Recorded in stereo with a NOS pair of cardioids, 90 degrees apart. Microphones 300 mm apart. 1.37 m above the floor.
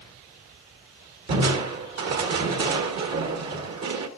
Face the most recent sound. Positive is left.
turn(degrees=-60)